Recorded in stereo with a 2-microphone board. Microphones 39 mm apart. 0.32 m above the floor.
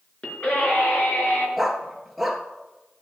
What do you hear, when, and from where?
0.2 s a scream: 35° left (ahead or behind), 5 m; by 1.5 s 50° left (ahead or behind), 5.5 m
1.6 s a dog barking: centre (ahead or behind), 1.6 m